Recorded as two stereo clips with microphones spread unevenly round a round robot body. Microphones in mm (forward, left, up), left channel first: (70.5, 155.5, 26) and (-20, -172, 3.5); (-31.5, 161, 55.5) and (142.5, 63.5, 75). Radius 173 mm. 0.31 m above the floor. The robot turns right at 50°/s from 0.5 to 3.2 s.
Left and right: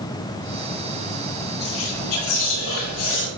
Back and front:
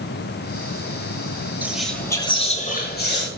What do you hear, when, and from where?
1.6 s whispering: 50° left, 6 m; by 3.3 s 130° left, 6 m